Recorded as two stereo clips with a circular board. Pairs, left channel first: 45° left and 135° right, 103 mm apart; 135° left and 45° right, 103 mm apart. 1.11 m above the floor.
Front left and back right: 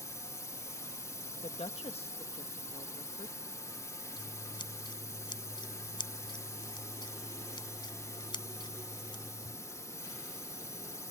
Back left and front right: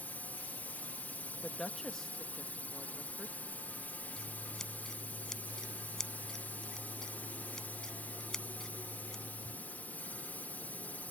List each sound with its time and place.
0.0 s a drone: 75° left
1.4 s a woman speaking: 50° left
4.2 s scissors: 50° left